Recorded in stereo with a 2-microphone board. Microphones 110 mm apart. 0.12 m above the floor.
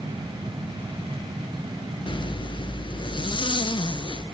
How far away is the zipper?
About 0.6 m.